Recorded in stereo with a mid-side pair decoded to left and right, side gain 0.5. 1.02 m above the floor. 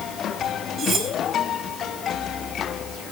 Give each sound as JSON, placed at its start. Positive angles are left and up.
{"t": 0.8, "sound": "cutlery clinking", "azimuth_deg": -45, "distance_m": 4.5}